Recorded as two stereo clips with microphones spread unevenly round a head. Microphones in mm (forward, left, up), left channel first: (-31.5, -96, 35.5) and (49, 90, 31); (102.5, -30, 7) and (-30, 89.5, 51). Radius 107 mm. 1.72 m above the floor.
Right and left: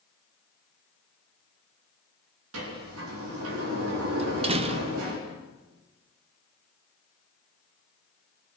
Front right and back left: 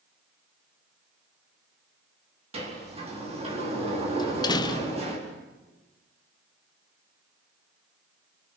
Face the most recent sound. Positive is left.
turn(degrees=30)